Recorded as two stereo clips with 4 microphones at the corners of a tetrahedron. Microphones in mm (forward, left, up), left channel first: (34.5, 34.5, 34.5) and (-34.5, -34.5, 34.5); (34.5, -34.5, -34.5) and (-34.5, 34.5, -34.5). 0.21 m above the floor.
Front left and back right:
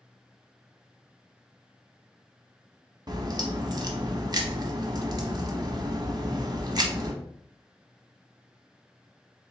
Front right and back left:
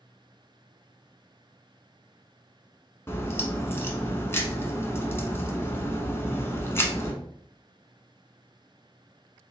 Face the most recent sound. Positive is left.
turn(degrees=-100)